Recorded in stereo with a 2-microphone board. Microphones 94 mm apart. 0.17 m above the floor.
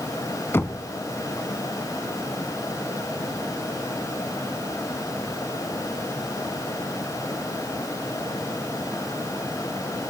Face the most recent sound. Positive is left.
turn(degrees=25)  # may be behind; listen again after turning